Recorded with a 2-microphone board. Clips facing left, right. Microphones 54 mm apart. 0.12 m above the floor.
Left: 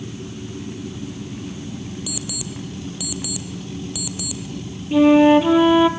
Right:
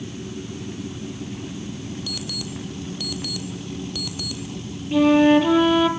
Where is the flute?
10° left (ahead or behind), 1.6 m.